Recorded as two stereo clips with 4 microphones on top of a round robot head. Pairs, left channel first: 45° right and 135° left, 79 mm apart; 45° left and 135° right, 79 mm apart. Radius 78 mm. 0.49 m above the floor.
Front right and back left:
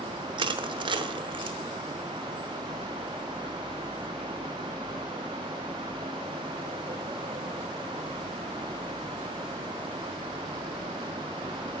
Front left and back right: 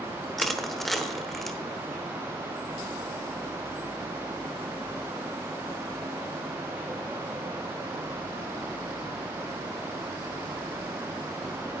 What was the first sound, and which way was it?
Crushing, 130° left.